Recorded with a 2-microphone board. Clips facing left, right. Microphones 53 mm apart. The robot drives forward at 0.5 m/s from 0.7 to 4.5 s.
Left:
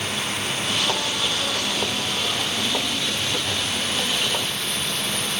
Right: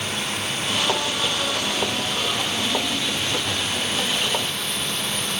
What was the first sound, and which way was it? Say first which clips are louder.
Running water: even; 5° right (ahead or behind).